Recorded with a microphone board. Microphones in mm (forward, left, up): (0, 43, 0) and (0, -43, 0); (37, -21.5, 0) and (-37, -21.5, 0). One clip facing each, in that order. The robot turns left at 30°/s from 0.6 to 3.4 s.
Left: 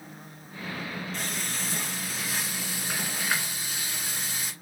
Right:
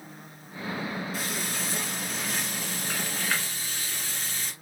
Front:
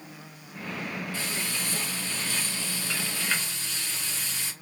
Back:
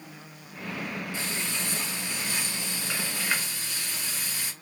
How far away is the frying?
About 1.6 m.